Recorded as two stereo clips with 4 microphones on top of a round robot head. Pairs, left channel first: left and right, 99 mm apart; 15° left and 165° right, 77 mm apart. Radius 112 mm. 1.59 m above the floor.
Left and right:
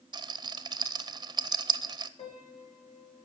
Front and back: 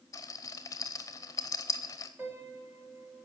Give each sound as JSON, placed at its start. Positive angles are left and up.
{"t": 0.1, "sound": "a rattle", "azimuth_deg": -45, "distance_m": 0.7}
{"t": 2.2, "sound": "a piano", "azimuth_deg": 125, "distance_m": 3.0}